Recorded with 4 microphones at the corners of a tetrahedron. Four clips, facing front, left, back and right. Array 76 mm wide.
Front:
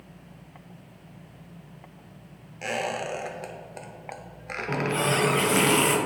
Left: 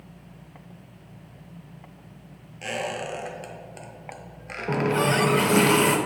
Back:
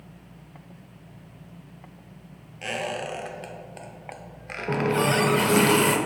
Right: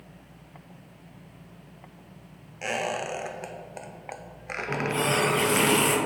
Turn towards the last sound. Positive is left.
turn(degrees=130)